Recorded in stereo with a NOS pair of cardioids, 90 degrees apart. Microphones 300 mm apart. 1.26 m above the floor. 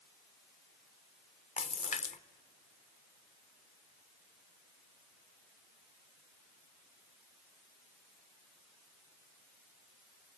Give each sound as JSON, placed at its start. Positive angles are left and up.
{"t": 1.6, "sound": "a splash", "azimuth_deg": 25, "distance_m": 0.7}